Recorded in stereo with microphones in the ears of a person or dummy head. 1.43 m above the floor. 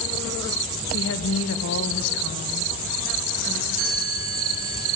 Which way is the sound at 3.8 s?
70° right (ahead or behind).